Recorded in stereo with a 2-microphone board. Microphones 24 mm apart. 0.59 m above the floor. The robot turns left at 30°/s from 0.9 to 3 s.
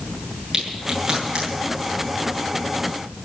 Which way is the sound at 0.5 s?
35° right (ahead or behind).